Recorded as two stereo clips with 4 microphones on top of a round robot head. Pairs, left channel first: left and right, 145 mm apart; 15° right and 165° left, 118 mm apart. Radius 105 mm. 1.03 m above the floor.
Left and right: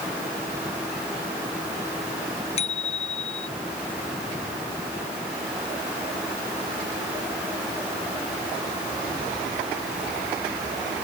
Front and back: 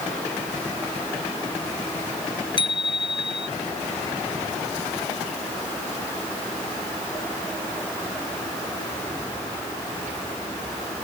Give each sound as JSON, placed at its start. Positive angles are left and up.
{"t": 2.6, "sound": "a bicycle bell", "azimuth_deg": 35}